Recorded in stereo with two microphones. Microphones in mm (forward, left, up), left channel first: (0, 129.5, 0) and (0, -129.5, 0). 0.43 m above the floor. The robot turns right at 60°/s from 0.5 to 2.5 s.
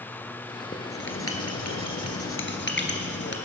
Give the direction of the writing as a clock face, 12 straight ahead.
11 o'clock.